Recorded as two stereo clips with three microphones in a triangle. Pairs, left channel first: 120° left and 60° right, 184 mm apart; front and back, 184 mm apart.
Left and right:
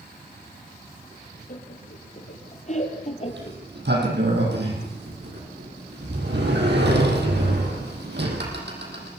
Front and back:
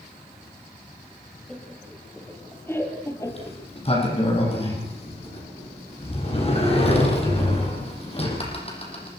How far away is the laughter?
About 5 m.